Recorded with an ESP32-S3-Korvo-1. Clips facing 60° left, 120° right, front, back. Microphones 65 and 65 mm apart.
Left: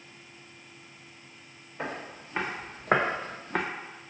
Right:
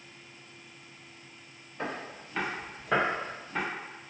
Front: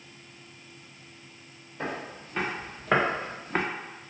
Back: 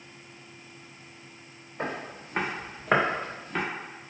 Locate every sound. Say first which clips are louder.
1.8 s footsteps: even, back 1 dB; 140° left, 1.9 m; by 3.6 s 40° left, 0.8 m